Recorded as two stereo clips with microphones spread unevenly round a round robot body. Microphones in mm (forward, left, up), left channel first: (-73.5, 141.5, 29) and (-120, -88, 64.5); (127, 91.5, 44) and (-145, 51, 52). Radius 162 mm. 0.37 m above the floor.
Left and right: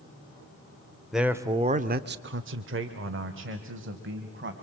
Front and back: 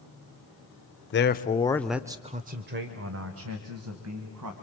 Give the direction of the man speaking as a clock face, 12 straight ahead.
12 o'clock.